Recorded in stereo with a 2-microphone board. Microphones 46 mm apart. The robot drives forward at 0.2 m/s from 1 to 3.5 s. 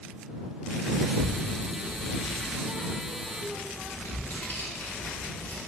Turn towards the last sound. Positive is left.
turn(degrees=50)  # may be behind; listen again after turning